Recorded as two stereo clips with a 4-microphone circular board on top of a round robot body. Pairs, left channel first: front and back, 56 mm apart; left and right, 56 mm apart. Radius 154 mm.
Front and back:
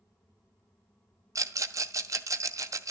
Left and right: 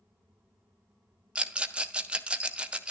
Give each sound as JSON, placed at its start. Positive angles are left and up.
{"t": 1.4, "sound": "a rattle", "azimuth_deg": -160, "distance_m": 1.1}